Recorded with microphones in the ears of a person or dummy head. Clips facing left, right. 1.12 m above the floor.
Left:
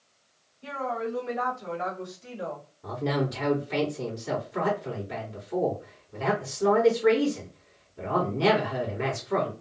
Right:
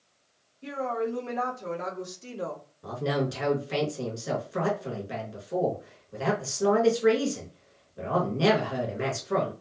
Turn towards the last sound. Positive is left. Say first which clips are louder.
# even
turn(degrees=-65)  # may be behind; listen again after turning